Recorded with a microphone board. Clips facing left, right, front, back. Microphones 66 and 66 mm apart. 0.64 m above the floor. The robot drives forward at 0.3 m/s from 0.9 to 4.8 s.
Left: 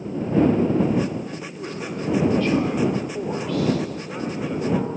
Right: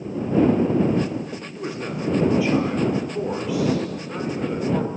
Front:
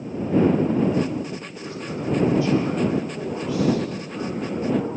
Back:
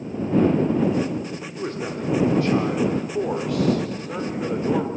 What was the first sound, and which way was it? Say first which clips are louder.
A man speaking: right 3 dB, back 5 dB; 165° right.